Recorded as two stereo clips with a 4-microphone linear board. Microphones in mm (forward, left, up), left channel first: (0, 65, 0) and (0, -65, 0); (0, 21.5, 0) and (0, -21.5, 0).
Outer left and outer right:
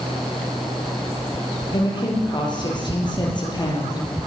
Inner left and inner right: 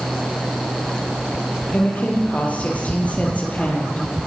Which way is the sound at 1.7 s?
35° left (ahead or behind).